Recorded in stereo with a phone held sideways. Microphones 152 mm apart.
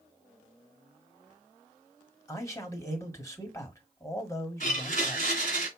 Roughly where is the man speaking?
Centre.